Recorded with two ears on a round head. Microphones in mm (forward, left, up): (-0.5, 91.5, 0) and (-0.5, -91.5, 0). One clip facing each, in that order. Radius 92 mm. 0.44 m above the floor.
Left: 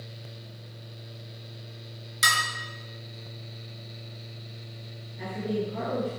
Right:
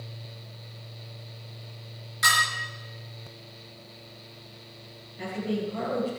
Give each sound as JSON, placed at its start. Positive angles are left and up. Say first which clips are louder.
{"t": 2.2, "sound": "dishes clattering", "louder": "right 2 dB", "side_deg": 45, "distance_m": 4.5}
{"t": 5.2, "sound": "a woman speaking", "louder": "even", "side_deg": 0, "distance_m": 6.5}